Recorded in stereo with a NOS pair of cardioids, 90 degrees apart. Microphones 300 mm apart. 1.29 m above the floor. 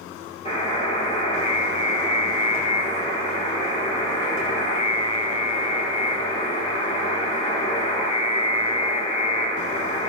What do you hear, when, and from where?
0.5 s a buzzer: 25° left, 6 m